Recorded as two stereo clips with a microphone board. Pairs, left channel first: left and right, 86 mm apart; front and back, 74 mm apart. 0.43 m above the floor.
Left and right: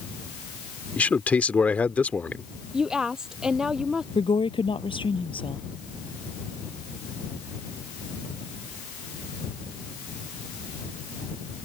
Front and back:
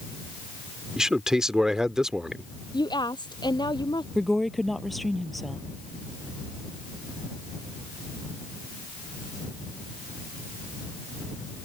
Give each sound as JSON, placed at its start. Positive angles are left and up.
{"t": 1.0, "sound": "a man speaking", "azimuth_deg": 115}
{"t": 2.7, "sound": "a woman speaking", "azimuth_deg": -10}
{"t": 4.2, "sound": "a woman speaking", "azimuth_deg": 90}